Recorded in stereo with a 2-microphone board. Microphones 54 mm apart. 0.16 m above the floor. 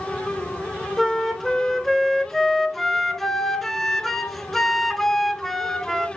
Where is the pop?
No pop in this recording.